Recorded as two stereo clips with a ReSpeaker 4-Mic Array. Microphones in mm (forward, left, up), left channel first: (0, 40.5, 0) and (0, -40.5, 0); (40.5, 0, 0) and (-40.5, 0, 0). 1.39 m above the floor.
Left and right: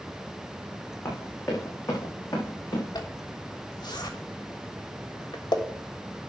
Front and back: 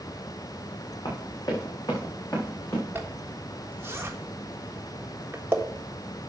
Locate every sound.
1.1 s running footsteps: 30° left, 4.5 m; by 2.8 s 55° left, 6 m
3.0 s a zipper: 120° left, 1.5 m